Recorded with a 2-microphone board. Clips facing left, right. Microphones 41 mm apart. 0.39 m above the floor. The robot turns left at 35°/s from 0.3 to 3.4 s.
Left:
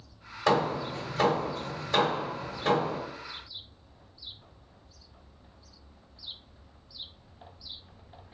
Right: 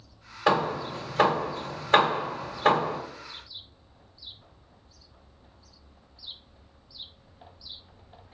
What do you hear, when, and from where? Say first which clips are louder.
0.5 s hammering: right 1 dB; 20° right (ahead or behind), 1.3 m; by 3.0 s 45° right (ahead or behind), 1.3 m